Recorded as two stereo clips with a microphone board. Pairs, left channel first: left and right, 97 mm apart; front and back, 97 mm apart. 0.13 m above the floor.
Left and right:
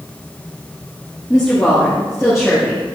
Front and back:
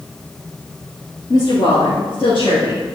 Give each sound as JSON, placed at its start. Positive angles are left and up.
{"t": 1.3, "sound": "a woman speaking", "azimuth_deg": 10, "distance_m": 2.0}